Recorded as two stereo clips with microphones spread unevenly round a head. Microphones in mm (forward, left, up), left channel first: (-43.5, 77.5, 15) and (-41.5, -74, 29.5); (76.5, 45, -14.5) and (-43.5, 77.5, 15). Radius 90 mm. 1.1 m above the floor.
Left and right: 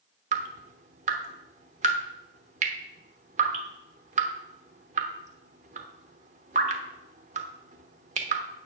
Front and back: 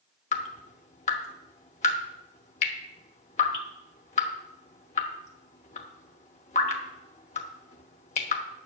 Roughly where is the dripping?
Ahead right.